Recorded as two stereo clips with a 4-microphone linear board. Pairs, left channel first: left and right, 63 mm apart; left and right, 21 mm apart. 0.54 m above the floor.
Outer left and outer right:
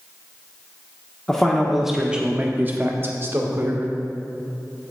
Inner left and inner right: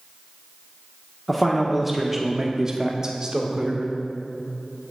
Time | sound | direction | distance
1.3 | a man speaking | 10° left (ahead or behind) | 1.0 m